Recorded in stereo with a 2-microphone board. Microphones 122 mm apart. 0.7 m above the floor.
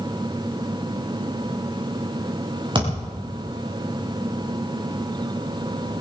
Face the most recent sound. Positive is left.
turn(degrees=-40)  # may be behind; listen again after turning